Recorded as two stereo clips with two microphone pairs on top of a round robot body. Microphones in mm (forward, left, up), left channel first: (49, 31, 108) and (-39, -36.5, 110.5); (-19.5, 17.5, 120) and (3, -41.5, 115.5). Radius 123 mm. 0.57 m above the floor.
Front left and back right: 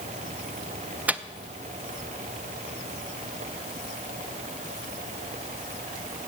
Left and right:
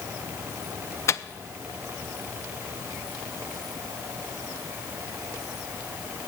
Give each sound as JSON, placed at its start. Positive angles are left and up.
{"t": 1.1, "sound": "a microwave", "azimuth_deg": 145, "distance_m": 0.5}